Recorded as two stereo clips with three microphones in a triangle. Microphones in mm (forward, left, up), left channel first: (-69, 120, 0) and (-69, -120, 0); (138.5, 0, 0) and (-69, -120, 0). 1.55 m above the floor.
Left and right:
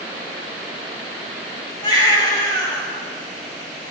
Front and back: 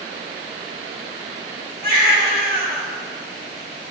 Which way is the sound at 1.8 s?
165° left.